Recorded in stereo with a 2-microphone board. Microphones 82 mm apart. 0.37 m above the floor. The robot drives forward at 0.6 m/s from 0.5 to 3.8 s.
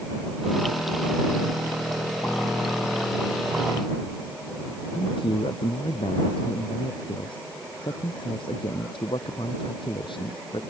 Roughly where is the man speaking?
Left.